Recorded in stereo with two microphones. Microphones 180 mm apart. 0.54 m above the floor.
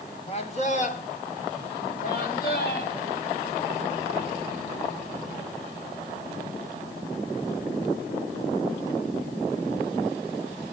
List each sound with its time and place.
0.3 s a man speaking: 35° left (ahead or behind), 1.1 m; by 3.0 s 55° left (ahead or behind), 3 m